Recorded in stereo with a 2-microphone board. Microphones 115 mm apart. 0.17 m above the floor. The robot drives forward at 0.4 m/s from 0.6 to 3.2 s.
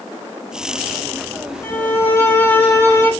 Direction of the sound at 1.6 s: 15° left (ahead or behind).